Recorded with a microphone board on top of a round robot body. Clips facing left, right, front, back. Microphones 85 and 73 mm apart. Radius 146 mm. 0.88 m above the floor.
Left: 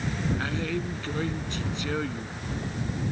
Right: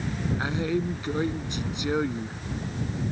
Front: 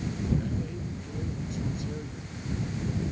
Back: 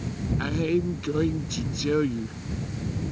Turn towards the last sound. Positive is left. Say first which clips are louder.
# right 3 dB, back 10 dB
turn(degrees=-165)